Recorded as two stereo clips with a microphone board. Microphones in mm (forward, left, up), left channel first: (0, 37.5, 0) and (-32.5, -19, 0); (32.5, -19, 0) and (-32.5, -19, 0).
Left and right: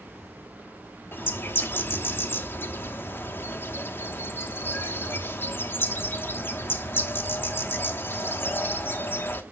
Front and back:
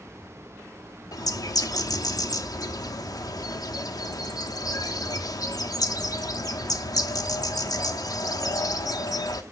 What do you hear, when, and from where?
1.1 s a bird: 5° left, 1.0 m